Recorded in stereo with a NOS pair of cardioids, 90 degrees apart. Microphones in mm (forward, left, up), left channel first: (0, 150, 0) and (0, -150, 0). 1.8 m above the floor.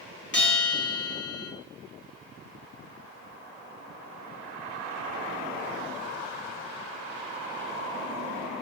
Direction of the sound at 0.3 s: 40° left.